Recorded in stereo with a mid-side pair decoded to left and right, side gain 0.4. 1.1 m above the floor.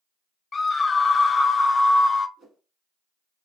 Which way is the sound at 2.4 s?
65° right.